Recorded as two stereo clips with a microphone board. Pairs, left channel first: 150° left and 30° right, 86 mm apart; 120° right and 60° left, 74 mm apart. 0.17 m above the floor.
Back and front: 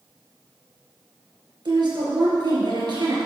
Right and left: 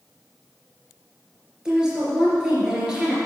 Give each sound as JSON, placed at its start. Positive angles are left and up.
{"t": 1.6, "sound": "a woman speaking", "azimuth_deg": -20, "distance_m": 3.5}